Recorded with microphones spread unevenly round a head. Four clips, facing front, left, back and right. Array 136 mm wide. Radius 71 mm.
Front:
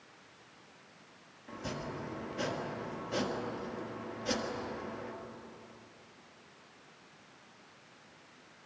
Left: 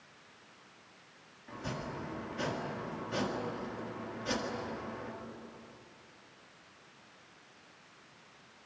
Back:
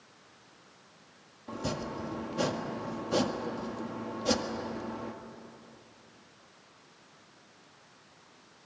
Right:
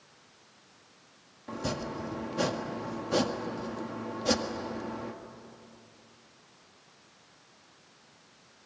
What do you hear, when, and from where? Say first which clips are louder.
1.5 s chopping: right 6 dB, back 5 dB; 125° right, 1.7 m